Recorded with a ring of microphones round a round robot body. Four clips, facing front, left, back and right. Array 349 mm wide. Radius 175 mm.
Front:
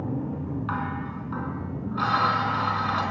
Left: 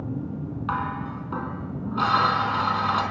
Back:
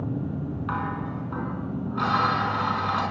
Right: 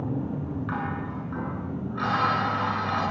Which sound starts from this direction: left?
Dishes clattering, at 0.7 s.